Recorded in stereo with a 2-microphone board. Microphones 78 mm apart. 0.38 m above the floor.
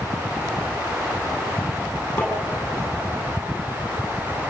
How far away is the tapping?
About 9 m.